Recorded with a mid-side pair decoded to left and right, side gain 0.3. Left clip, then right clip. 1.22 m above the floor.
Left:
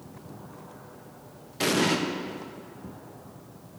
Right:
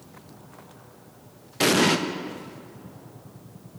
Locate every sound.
1.6 s an explosion: 50° right, 1.1 m